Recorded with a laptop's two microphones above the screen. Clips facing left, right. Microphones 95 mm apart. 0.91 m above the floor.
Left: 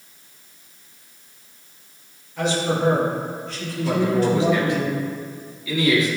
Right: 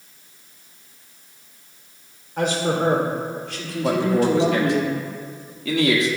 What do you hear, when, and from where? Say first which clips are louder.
2.4 s a man speaking: right 1 dB; 50° right (ahead or behind), 3 m; by 4.8 s 75° right (ahead or behind), 2 m
3.8 s a man speaking: right 1 dB; 65° right (ahead or behind), 1.5 m